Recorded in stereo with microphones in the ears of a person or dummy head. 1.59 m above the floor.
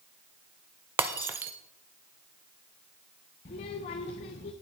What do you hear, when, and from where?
1.0 s breaking glass: 15° right (ahead or behind), 0.8 m
3.5 s a child speaking: 35° left (ahead or behind), 0.7 m